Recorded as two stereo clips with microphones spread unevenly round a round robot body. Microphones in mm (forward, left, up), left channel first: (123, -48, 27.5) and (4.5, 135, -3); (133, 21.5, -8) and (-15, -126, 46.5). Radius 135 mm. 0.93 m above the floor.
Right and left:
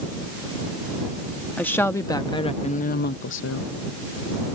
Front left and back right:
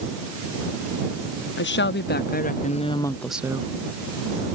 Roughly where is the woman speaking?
Ahead left.